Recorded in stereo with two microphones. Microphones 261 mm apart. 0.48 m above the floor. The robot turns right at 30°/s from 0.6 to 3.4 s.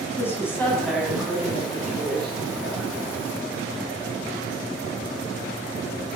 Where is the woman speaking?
170° left, 4.5 m; by 2.9 s 120° right, 4.5 m.